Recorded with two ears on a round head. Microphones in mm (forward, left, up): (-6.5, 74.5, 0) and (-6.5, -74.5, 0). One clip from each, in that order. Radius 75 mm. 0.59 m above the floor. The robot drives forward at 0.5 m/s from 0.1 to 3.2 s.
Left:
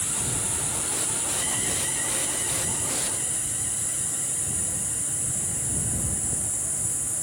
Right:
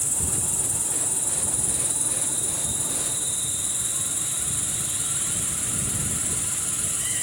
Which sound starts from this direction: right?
An insect, at 0.0 s.